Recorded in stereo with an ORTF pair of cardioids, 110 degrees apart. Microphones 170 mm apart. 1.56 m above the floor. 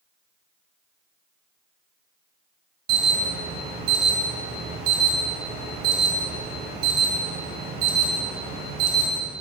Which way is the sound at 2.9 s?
70° right.